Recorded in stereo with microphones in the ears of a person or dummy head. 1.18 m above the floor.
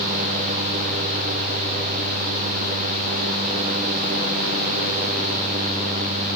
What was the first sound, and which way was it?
Only background noise.